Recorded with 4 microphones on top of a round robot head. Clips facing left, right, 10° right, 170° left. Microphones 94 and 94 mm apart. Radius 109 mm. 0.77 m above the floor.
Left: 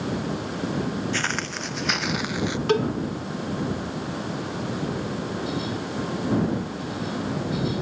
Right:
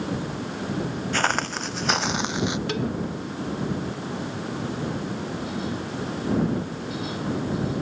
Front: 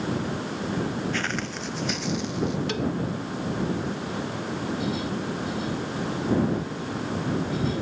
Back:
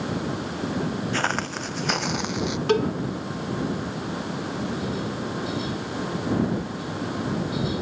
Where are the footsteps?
130° right; by 2.6 s 160° right.